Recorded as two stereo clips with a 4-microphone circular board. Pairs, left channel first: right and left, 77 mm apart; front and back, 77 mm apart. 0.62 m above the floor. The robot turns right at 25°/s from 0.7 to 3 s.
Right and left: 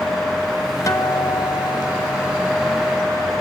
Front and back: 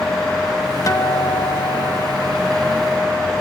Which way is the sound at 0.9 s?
40° right.